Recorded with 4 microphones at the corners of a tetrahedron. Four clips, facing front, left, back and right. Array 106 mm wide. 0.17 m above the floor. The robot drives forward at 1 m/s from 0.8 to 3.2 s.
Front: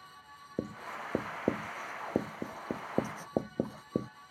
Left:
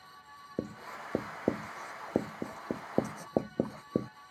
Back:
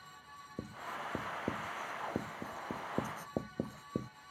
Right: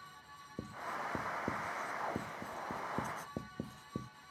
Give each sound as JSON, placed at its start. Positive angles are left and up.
{"t": 0.6, "sound": "writing", "azimuth_deg": 45}